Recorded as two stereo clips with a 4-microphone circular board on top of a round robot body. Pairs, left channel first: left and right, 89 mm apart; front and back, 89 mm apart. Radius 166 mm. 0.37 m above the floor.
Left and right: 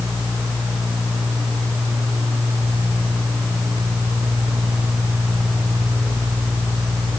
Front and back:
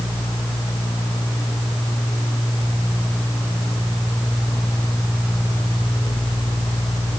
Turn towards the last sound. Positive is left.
No sound to turn to.